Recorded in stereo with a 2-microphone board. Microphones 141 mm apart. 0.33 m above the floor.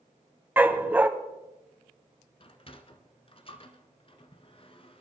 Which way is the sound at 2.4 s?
40° left (ahead or behind).